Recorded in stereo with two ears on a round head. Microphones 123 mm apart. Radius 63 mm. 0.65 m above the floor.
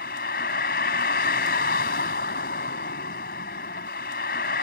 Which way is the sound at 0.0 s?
80° left.